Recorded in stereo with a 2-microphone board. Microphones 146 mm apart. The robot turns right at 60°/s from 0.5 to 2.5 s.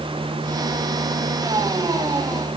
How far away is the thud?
No thud in this recording.